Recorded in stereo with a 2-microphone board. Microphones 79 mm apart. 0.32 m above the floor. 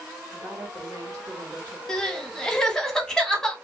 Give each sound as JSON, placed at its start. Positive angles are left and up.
{"t": 0.3, "sound": "a woman speaking", "side_deg": -45, "distance_m": 2.0}
{"t": 1.9, "sound": "crying", "side_deg": 5, "distance_m": 0.8}